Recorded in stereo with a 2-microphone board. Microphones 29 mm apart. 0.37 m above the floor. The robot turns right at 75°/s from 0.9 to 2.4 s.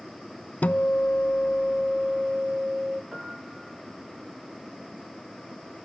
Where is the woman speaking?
I don't hear a woman speaking.